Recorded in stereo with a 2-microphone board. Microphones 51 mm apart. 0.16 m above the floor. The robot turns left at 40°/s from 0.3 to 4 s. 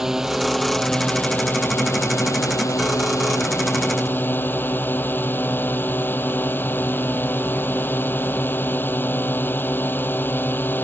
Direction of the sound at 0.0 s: 170° right.